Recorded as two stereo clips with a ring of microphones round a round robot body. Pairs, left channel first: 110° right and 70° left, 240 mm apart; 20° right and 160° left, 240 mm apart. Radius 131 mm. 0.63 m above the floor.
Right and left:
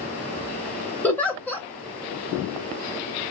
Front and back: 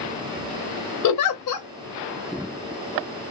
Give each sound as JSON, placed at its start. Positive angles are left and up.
{"t": 1.0, "sound": "a giggle", "azimuth_deg": -30, "distance_m": 0.6}